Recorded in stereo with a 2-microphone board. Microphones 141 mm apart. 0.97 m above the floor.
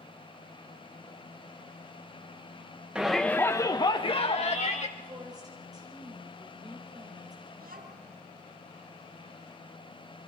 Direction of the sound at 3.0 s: 5° right (ahead or behind).